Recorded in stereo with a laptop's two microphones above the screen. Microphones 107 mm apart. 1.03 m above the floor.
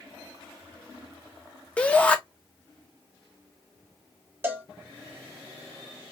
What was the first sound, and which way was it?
A shout, 10° left (ahead or behind).